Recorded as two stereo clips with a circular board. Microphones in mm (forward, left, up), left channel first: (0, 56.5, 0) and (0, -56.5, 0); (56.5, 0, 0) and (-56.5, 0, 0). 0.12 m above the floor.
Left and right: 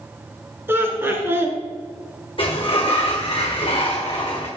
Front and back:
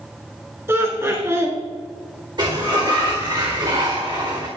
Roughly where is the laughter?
Behind right.